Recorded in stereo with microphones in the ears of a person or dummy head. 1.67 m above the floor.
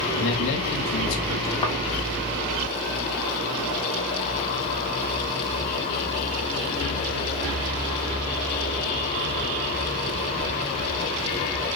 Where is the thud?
20° left (ahead or behind), 1.4 m.